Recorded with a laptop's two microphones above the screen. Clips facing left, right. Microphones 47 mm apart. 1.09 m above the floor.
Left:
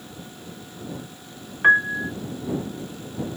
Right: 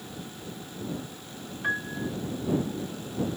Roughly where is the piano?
Left.